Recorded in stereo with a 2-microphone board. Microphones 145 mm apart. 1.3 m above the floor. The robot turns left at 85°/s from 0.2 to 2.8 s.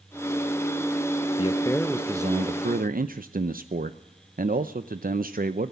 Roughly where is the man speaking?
Ahead left.